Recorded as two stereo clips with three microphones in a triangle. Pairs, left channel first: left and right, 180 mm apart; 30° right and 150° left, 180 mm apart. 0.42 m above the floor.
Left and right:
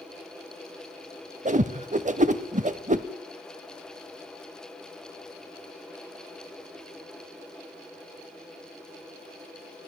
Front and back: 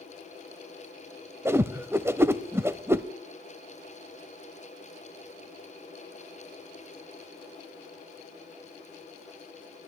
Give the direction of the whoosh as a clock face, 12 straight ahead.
4 o'clock.